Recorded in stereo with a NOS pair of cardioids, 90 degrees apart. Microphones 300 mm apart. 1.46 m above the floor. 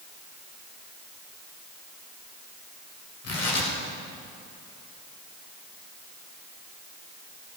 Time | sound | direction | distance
3.2 | tearing paper | 60° left | 7 m